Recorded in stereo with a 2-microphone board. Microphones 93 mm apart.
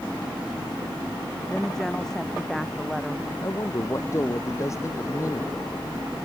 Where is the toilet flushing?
No toilet flushing in this recording.